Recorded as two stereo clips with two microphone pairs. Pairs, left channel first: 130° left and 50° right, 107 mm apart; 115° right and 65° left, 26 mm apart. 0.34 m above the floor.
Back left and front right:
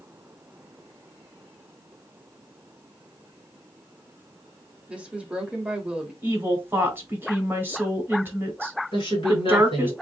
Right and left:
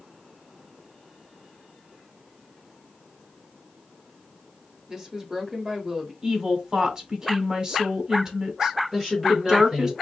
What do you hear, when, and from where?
4.9 s a woman speaking: 20° left, 1.0 m
6.2 s a woman speaking: 15° left, 1.4 m
8.9 s a woman speaking: 130° left, 1.5 m